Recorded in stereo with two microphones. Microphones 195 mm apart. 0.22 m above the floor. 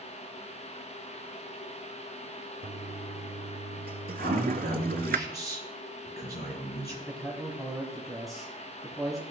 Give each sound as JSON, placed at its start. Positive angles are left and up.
{"t": 2.6, "sound": "a toilet flushing", "side_deg": -55, "distance_m": 0.5}
{"t": 4.2, "sound": "a man speaking", "side_deg": 60, "distance_m": 3.5}
{"t": 7.1, "sound": "a man speaking", "side_deg": 0, "distance_m": 1.8}